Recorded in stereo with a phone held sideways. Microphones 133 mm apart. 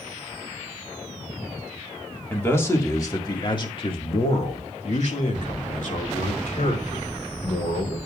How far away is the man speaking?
About 2 m.